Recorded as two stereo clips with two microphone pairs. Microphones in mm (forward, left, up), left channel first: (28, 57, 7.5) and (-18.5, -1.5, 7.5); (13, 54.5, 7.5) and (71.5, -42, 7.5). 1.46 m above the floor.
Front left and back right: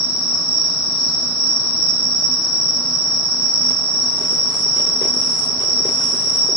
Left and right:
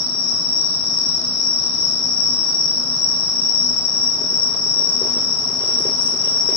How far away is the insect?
About 1.6 m.